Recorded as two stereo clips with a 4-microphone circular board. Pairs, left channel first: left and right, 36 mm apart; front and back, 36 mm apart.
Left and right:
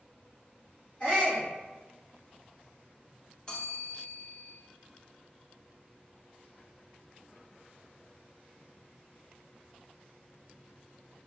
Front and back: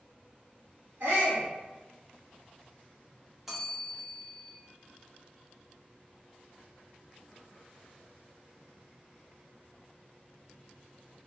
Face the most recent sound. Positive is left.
turn(degrees=100)